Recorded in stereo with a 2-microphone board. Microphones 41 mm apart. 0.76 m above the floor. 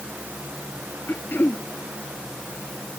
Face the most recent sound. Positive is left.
turn(degrees=60)  # may be behind; listen again after turning